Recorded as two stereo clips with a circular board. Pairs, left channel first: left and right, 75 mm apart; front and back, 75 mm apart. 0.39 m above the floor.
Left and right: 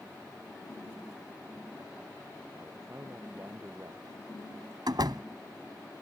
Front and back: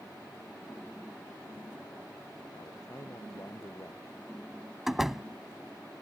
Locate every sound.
2.6 s a man speaking: 45° right
4.9 s a door slam: 95° right